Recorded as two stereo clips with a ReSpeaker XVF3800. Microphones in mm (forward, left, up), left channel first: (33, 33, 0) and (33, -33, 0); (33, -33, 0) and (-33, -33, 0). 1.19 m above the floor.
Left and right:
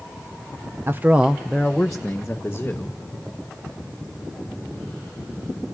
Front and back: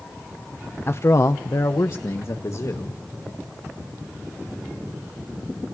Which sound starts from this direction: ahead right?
A man speaking, at 0.9 s.